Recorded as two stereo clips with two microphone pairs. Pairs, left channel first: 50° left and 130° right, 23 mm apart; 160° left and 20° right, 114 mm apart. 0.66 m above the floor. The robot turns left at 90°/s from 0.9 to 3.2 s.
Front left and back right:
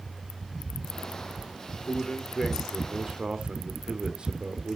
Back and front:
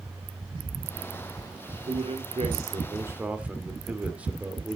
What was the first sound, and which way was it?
A man speaking, 25° left.